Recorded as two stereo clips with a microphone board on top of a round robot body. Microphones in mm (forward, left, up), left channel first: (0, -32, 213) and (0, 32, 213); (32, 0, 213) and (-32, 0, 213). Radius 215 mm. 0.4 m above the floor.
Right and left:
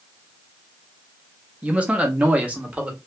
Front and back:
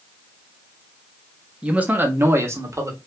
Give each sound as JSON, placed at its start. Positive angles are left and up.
{"t": 1.6, "sound": "a man speaking", "azimuth_deg": 130, "distance_m": 0.9}